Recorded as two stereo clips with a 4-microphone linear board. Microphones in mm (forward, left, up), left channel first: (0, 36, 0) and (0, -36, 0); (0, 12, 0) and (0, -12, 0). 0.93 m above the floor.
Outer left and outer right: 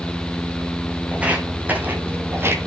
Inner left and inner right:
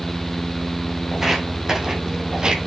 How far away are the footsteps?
About 2.5 m.